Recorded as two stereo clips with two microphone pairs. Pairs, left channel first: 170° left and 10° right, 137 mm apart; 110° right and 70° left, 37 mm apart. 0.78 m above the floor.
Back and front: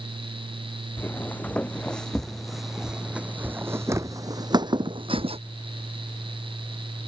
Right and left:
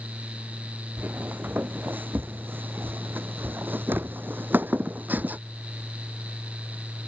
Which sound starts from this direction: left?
Footsteps, at 1.0 s.